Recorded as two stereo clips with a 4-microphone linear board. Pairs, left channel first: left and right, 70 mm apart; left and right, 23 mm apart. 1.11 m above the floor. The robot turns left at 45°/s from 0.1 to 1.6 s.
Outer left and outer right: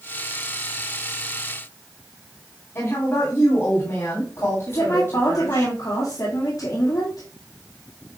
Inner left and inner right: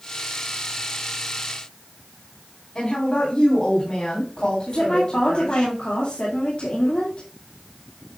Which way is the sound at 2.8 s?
40° left (ahead or behind).